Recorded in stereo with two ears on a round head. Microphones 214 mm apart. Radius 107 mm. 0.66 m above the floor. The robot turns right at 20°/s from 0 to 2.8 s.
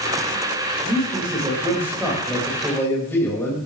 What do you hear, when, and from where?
0.8 s a man speaking: 30° right, 4 m; by 3.6 s 10° left, 4 m